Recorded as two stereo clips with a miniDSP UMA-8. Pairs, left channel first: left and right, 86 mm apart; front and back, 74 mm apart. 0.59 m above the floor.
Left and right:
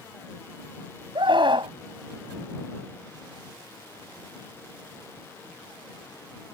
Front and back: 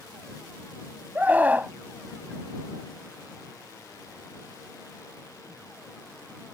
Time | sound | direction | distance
1.1 | a scream | 115° right | ?